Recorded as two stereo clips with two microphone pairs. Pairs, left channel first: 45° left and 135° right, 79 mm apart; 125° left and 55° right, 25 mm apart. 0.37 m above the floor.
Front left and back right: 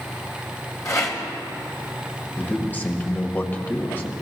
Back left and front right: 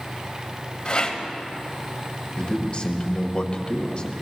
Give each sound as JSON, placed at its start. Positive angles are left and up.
{"t": 0.8, "sound": "a rattle", "azimuth_deg": 80, "distance_m": 2.5}
{"t": 2.4, "sound": "a man speaking", "azimuth_deg": 105, "distance_m": 1.7}